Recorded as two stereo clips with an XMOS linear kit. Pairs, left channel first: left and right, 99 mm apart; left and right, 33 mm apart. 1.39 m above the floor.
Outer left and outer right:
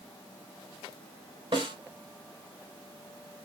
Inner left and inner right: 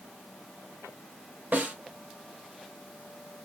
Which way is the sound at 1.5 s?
55° right (ahead or behind).